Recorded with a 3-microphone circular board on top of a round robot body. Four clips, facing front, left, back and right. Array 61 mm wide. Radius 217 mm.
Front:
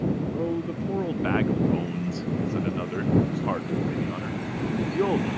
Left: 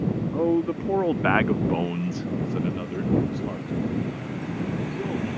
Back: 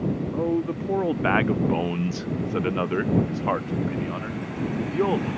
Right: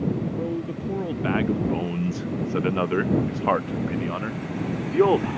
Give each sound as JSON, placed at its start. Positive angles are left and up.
{"t": 0.3, "sound": "a man speaking", "azimuth_deg": 115}